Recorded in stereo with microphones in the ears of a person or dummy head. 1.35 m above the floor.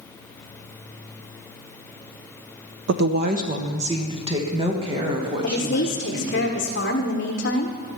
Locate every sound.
2.9 s a woman speaking: 65° right (ahead or behind), 0.5 m; by 6.4 s 25° right (ahead or behind), 2.5 m
5.4 s a woman speaking: 55° left (ahead or behind), 1.2 m